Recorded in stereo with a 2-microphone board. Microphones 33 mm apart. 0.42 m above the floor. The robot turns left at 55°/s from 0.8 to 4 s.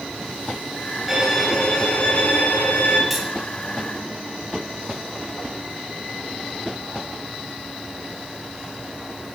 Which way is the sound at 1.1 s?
170° right.